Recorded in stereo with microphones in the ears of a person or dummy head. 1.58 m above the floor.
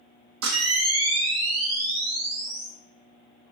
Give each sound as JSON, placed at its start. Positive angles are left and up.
{"t": 0.4, "sound": "a camera shutter", "side_deg": -85, "distance_m": 1.9}